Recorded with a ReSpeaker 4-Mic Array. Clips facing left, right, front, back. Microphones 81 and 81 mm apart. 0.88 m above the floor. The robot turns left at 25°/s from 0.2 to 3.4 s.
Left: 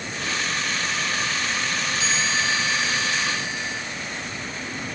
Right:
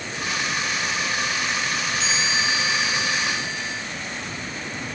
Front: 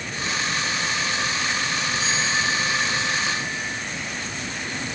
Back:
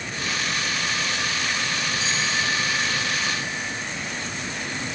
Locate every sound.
2.0 s a chime: straight ahead, 4 m; by 3.8 s 35° right, 4 m